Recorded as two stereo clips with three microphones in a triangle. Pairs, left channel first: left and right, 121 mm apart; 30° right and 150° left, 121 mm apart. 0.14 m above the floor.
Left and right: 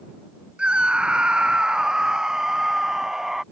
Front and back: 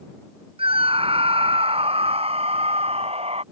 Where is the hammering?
I don't hear hammering.